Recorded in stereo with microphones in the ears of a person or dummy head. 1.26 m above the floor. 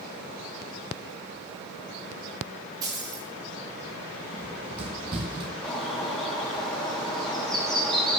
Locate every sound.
2.8 s a dropped coin: 20° right (ahead or behind), 6 m
4.3 s running footsteps: 40° right (ahead or behind), 2 m; by 5.5 s 25° right (ahead or behind), 1.6 m
5.6 s a bird: 5° left (ahead or behind), 2.5 m